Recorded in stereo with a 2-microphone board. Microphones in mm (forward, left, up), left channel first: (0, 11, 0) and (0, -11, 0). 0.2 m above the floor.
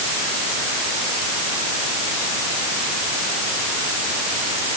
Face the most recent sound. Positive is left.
No sound to turn to.